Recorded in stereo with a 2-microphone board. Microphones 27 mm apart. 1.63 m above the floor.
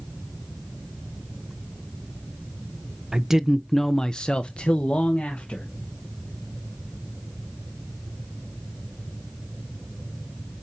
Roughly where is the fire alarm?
I don't hear a fire alarm.